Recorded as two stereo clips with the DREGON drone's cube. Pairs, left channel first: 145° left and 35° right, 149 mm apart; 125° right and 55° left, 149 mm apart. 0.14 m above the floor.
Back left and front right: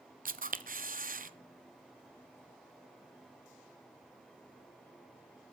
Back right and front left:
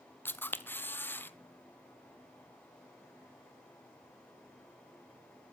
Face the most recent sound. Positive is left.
turn(degrees=-50)